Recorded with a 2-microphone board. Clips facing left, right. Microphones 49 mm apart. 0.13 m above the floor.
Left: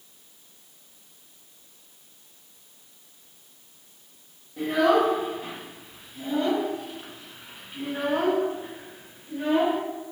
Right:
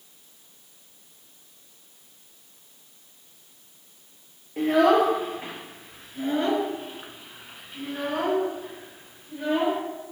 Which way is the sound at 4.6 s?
60° right (ahead or behind).